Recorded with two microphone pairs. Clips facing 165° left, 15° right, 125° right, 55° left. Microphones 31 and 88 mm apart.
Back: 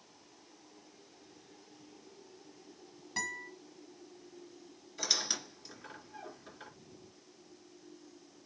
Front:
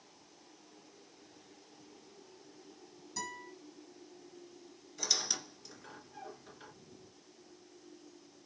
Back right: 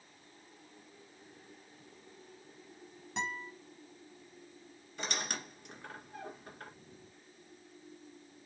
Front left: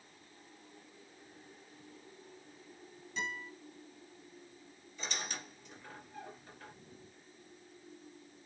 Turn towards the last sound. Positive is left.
turn(degrees=-120)